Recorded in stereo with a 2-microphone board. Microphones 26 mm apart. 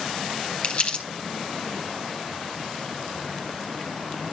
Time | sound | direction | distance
0.6 | crumpling | 45° left (ahead or behind) | 4 m